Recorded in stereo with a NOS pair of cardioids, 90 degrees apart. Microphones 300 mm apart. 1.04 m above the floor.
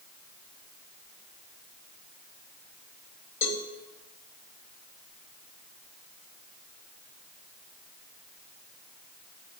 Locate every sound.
3.4 s a cowbell: 40° left, 1.4 m